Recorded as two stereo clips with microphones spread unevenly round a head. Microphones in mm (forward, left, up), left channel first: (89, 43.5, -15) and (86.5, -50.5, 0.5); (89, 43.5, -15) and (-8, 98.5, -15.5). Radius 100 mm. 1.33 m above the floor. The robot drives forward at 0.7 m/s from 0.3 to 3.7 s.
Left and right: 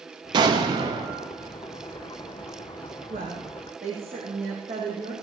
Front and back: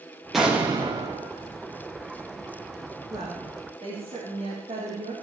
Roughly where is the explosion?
Behind right.